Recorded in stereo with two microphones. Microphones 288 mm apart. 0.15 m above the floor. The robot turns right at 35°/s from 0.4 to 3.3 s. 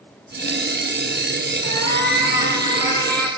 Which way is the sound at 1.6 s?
120° left.